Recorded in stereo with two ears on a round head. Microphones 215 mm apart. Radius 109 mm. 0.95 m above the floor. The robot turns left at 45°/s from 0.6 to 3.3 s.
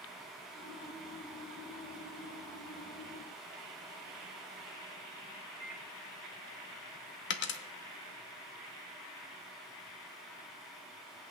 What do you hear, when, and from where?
5.6 s a microwave: 35° right (ahead or behind), 1.6 m
7.3 s a dropped coin: 50° left (ahead or behind), 0.8 m